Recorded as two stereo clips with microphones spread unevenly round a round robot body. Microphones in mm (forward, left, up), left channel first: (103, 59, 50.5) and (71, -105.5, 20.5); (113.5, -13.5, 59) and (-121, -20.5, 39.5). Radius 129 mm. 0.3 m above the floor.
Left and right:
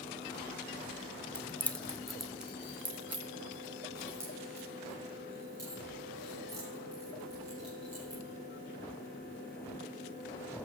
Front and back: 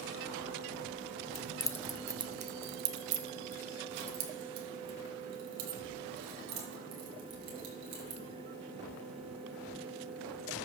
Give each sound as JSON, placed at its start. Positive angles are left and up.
{"t": 1.4, "sound": "keys jangling", "azimuth_deg": -5, "distance_m": 0.7}